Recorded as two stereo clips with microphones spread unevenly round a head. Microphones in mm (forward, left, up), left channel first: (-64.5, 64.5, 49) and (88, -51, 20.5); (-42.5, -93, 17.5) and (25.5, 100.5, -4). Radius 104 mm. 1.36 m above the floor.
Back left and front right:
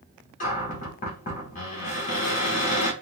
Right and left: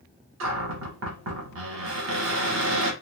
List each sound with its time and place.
0.4 s a cupboard door: 95° left, 1.3 m